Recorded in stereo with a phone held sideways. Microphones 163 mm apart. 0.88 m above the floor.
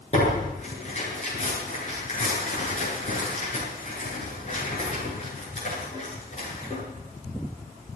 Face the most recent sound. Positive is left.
turn(degrees=45)  # may be behind; listen again after turning